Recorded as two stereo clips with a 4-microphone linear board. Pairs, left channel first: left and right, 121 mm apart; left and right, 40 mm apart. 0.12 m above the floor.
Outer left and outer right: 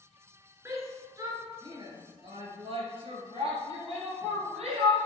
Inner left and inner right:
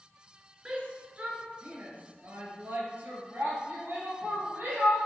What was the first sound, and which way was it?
A shout, 25° right (ahead or behind).